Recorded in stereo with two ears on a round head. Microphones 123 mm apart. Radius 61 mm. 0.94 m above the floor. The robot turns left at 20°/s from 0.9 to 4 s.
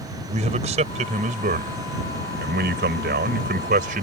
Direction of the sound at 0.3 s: 55° right.